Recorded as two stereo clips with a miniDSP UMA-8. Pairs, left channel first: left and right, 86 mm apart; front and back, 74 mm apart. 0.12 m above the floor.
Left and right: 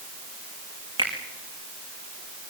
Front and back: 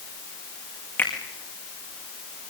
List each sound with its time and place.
1.0 s a finger snap: 65° right, 6 m